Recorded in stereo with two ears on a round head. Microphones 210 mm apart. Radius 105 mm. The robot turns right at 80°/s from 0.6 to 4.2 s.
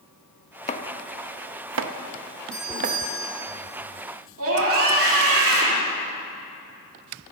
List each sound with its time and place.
0.7 s chopping: 30° left (ahead or behind), 0.7 m; by 3.0 s 25° right (ahead or behind), 0.7 m
2.5 s a doorbell: 175° left, 3.5 m; by 3.5 s 110° right, 3.5 m
4.4 s a scream: 60° right (ahead or behind), 3 m